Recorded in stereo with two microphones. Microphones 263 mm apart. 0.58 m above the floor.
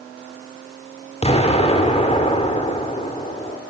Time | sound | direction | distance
1.2 | an explosion | 25° left (ahead or behind) | 1.8 m